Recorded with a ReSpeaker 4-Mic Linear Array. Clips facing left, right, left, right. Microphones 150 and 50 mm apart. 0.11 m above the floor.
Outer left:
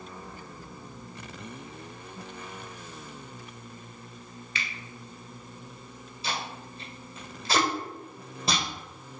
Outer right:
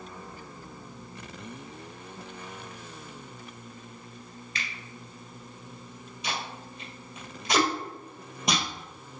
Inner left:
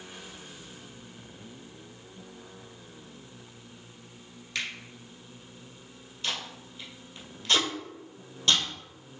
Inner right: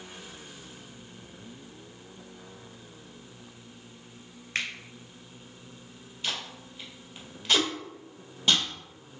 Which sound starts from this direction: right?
A finger snap, at 4.5 s.